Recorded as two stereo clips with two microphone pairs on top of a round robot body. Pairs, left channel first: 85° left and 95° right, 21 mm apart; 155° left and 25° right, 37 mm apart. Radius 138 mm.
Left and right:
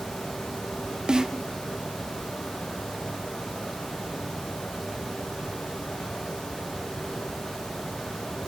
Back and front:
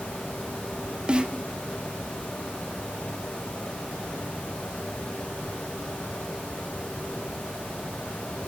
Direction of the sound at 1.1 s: 90° right.